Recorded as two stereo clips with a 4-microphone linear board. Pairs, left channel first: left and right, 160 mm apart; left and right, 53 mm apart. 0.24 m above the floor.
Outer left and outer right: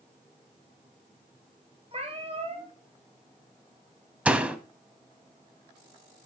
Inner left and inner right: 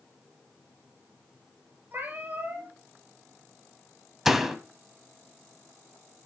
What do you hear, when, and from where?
1.9 s a cat meowing: 40° right (ahead or behind), 2 m
4.2 s a door slam: 5° right (ahead or behind), 0.9 m